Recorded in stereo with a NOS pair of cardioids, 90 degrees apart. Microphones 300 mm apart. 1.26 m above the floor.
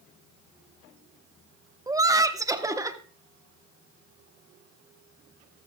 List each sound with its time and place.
1.9 s laughter: 10° right, 1.1 m